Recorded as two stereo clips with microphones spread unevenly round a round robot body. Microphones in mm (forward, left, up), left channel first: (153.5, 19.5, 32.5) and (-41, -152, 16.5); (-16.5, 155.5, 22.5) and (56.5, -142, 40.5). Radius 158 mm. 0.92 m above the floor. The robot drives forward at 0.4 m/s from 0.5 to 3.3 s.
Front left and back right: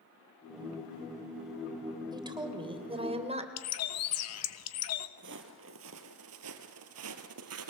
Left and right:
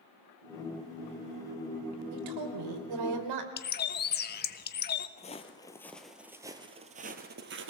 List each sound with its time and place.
2.1 s a woman speaking: 65° right, 3 m; by 3.5 s 70° right, 3 m
3.6 s a bird: 55° left, 1.1 m
5.2 s footsteps: 170° left, 1.4 m; by 7.7 s 120° right, 1.6 m